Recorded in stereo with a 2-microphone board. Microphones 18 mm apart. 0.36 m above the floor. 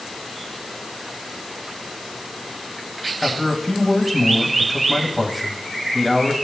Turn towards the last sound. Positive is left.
turn(degrees=-10)  # may be behind; listen again after turning